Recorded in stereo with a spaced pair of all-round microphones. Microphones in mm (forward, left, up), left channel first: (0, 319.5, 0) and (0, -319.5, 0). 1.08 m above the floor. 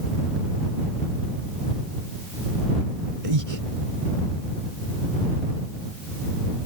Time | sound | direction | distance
3.2 | breathing | 55° right (ahead or behind) | ?